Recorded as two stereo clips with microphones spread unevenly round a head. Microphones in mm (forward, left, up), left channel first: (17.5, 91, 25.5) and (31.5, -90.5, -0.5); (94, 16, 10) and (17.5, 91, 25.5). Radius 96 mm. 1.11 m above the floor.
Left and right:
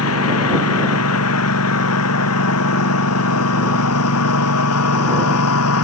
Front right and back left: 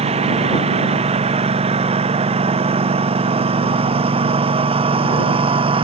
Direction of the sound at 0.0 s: 115° left.